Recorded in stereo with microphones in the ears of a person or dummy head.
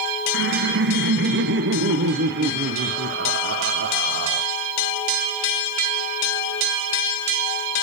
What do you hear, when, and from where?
0.3 s laughter: 60° right (ahead or behind), 0.5 m